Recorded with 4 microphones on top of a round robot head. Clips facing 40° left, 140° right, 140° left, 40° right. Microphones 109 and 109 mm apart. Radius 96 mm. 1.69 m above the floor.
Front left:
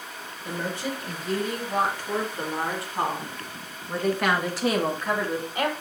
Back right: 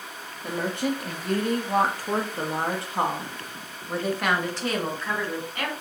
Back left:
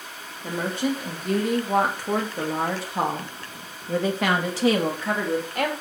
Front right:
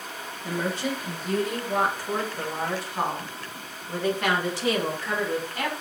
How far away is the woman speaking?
About 2.5 m.